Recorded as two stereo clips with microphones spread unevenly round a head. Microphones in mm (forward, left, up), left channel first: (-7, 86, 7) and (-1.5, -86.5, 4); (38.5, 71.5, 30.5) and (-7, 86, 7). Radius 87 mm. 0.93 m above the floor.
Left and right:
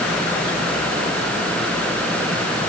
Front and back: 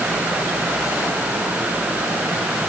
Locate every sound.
Only background noise.